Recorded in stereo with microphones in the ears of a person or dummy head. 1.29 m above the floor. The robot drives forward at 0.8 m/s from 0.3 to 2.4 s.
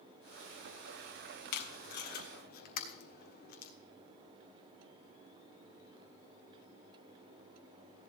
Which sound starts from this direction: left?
Tape being pulled, at 1.5 s.